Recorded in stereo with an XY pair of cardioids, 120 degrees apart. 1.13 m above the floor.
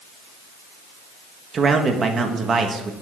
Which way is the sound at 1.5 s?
35° right.